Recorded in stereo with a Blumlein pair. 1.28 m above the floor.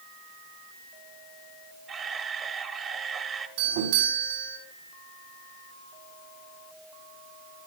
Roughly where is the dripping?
I don't hear dripping.